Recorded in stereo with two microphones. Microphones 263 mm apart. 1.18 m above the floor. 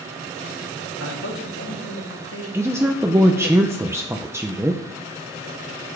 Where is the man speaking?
70° left (ahead or behind), 3.5 m; by 3.5 s 45° left (ahead or behind), 2 m.